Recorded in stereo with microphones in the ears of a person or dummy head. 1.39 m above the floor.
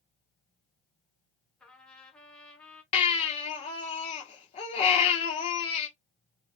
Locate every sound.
1.6 s a trumpet: 5° left (ahead or behind), 0.7 m
2.9 s a baby crying: 35° left (ahead or behind), 1.0 m